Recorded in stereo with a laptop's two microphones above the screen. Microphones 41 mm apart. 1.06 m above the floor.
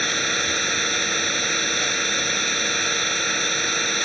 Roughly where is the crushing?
I don't hear crushing.